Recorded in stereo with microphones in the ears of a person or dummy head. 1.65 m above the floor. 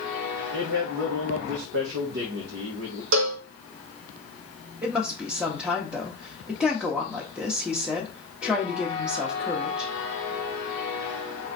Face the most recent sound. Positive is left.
turn(degrees=-10)  # may be behind; listen again after turning